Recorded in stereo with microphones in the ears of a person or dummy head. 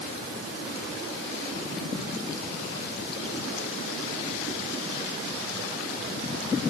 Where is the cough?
No cough in this recording.